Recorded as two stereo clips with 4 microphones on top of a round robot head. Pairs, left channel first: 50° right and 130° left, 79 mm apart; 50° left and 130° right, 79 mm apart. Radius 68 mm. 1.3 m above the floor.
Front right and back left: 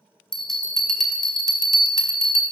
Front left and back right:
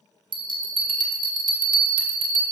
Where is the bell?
135° right, 1.1 m.